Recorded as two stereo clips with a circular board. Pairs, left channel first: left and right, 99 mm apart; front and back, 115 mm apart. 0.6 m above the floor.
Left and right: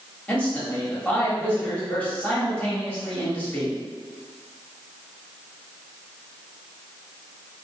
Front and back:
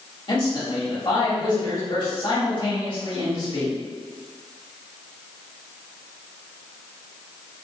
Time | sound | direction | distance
0.3 | a man speaking | 20° left | 1.7 m